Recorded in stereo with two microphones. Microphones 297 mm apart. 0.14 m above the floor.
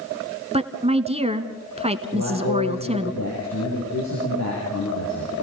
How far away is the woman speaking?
About 1.3 m.